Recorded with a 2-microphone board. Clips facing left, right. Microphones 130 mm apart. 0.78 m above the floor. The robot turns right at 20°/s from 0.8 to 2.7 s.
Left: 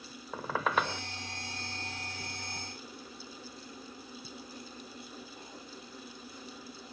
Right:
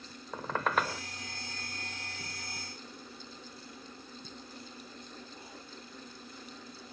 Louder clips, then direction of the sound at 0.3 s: Even; 5° left (ahead or behind).